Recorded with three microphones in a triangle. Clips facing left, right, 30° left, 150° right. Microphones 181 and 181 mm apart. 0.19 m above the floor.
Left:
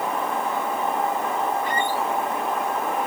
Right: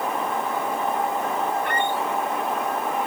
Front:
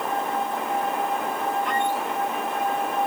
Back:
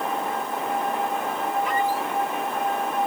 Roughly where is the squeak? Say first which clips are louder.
Even, back 1 dB; ahead right.